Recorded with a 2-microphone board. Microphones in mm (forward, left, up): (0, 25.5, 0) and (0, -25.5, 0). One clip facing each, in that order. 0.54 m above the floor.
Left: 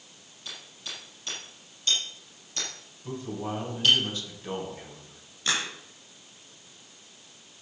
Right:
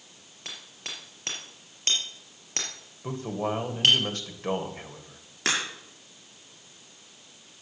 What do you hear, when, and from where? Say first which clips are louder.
0.5 s hammering: right 1 dB; 60° right (ahead or behind), 5 m
3.0 s a man speaking: right 4 dB; 55° right (ahead or behind), 2.5 m
5.5 s a crack: right 1 dB; 85° right, 6 m